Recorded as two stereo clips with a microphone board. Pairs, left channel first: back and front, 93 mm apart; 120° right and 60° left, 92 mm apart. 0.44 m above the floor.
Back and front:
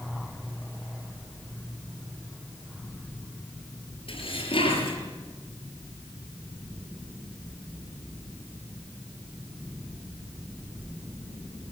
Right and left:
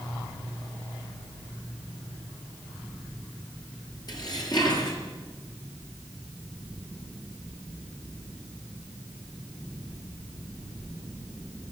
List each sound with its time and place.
4.1 s dishes clattering: 165° right, 6 m